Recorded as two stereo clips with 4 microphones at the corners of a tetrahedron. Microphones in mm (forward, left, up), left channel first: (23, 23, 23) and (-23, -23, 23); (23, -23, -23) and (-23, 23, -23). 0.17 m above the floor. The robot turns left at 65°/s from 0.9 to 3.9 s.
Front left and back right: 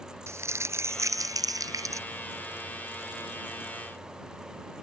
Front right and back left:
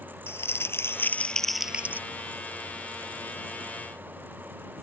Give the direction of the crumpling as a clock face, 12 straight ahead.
3 o'clock.